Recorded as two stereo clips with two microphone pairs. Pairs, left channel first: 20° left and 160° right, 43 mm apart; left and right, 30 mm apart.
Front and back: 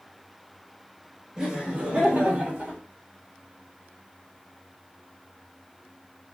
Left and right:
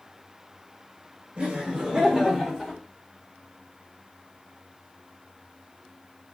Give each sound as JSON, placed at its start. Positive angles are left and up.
{"t": 1.4, "sound": "laughter", "azimuth_deg": -100, "distance_m": 0.9}